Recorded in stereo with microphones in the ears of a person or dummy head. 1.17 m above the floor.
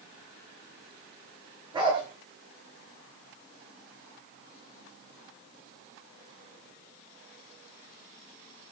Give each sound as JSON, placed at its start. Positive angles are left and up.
{"t": 1.7, "sound": "a dog barking", "side_deg": -25, "distance_m": 9.5}